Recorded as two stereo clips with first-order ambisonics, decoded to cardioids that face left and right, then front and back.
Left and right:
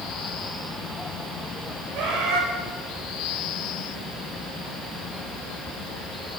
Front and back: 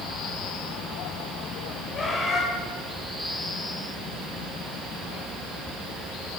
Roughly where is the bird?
Ahead right.